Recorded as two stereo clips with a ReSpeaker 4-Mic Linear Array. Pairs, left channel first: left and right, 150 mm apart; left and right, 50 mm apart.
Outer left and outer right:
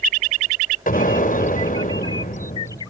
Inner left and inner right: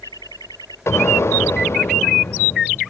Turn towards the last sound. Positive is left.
turn(degrees=65)  # may be behind; listen again after turning